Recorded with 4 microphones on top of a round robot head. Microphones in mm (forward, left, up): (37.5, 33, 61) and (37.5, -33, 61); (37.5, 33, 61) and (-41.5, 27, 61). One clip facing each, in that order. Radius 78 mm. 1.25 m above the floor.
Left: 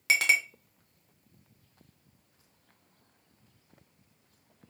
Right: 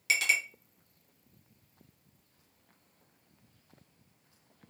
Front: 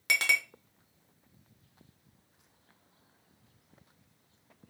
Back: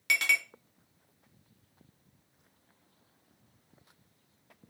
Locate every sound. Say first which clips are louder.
0.1 s a clink: left 4 dB, even; 55° left, 0.5 m